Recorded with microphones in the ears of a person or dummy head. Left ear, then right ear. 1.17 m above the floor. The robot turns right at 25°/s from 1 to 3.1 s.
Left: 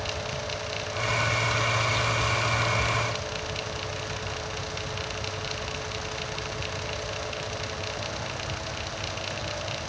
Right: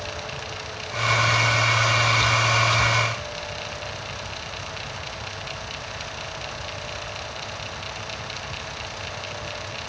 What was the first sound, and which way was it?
Only background noise.